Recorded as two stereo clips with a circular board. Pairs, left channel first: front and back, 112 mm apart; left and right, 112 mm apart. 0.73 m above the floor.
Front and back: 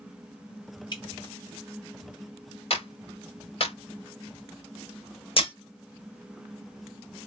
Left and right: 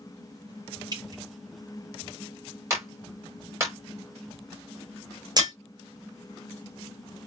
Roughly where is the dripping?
Ahead right.